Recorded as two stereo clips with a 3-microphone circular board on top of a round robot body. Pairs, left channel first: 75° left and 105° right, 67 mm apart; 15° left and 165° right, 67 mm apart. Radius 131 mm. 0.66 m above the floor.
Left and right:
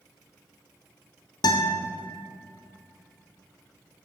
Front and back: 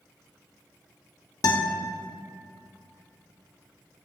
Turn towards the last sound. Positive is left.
turn(degrees=50)